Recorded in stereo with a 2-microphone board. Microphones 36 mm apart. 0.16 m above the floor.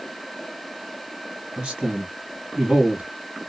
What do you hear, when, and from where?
1.6 s a man speaking: 25° right (ahead or behind), 1.7 m